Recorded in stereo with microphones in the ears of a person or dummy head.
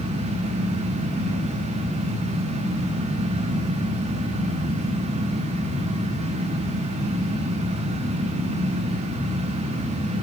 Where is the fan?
35° right (ahead or behind), 0.9 m.